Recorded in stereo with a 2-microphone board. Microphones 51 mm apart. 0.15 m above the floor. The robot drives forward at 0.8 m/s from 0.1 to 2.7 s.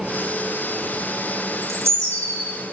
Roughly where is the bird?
Right.